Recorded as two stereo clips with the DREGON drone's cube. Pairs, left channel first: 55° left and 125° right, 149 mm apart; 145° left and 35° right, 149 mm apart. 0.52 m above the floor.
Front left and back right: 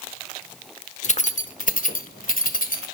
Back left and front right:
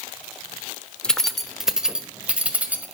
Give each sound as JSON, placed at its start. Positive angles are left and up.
{"t": 1.0, "sound": "keys jangling", "azimuth_deg": 65, "distance_m": 0.9}